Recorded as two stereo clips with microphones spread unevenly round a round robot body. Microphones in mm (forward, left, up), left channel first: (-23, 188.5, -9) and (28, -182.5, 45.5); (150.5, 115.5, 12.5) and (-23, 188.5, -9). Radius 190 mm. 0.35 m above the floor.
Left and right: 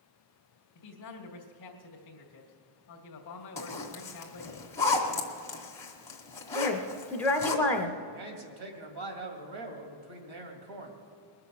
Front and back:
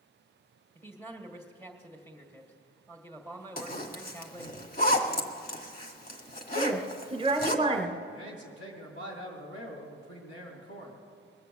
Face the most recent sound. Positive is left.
turn(degrees=-60)